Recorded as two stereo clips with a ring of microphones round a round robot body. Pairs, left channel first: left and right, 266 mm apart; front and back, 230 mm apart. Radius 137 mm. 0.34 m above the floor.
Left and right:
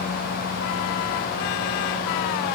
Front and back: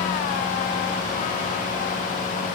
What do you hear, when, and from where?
Only background noise.